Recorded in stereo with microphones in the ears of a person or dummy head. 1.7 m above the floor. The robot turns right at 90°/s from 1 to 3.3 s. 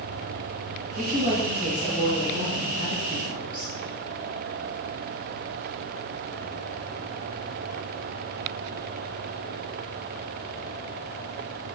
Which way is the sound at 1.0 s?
55° right.